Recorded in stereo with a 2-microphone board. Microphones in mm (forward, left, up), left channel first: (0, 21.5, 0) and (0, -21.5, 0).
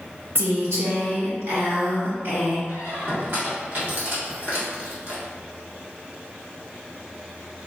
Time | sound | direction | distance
0.3 | a woman speaking | 80° right | 1.4 m
2.7 | a squeak | 55° right (ahead or behind) | 1.8 m